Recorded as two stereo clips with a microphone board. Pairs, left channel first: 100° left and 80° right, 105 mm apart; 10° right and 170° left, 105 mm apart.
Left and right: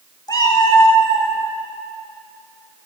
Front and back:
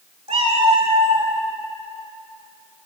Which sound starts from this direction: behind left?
A cat meowing, at 0.3 s.